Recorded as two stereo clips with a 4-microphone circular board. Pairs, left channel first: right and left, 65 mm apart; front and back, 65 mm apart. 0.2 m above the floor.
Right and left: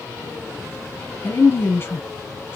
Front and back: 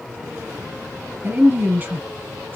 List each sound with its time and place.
1.2 s a woman speaking: 130° right, 1.5 m